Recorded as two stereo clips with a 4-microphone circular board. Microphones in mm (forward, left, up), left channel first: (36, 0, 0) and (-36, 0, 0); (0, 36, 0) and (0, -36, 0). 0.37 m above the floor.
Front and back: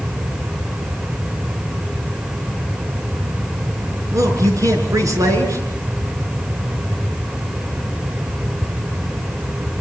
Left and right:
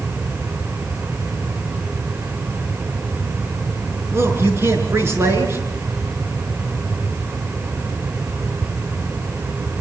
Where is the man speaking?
140° right, 5.5 m.